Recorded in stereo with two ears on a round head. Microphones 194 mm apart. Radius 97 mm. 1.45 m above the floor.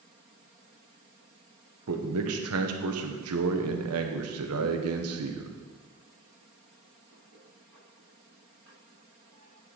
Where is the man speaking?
80° right, 1.3 m.